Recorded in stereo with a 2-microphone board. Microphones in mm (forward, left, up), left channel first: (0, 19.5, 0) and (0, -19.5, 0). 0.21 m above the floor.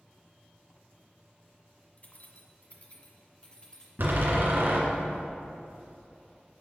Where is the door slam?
60° right (ahead or behind), 2 m.